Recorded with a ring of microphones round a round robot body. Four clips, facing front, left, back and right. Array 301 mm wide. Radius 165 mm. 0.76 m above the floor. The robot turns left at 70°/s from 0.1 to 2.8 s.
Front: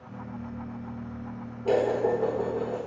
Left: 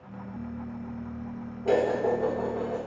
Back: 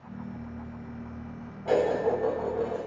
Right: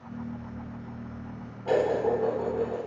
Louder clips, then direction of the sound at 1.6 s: Even, front 1 dB; 45° left.